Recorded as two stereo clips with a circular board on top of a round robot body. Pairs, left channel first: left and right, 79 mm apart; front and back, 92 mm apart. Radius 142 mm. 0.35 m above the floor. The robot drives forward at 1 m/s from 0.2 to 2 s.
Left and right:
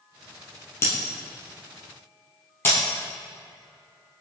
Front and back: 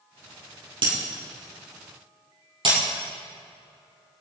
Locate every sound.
0.8 s breaking glass: 150° left, 4.5 m; by 2.8 s 155° left, 5.5 m